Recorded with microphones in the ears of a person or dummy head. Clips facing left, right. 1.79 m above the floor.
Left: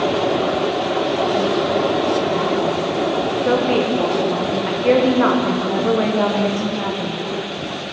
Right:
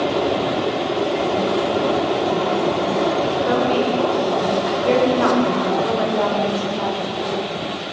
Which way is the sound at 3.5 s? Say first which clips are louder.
Left 3 dB; 35° left (ahead or behind).